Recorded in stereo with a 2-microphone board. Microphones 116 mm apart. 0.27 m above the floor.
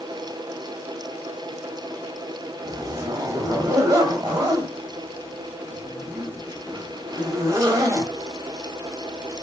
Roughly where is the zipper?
Right.